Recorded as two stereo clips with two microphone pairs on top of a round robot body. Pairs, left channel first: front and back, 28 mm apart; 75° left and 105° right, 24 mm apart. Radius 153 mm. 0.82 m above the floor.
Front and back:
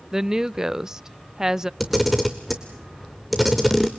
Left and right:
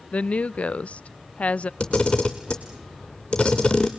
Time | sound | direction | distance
0.1 | a woman speaking | 115° left | 0.5 m
1.8 | a camera shutter | 95° left | 0.5 m